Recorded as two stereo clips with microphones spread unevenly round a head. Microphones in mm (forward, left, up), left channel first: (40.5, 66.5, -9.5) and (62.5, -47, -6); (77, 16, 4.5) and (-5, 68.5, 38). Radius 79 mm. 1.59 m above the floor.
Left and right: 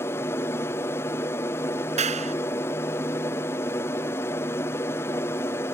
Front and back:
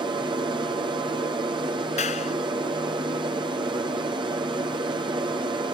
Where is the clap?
55° right.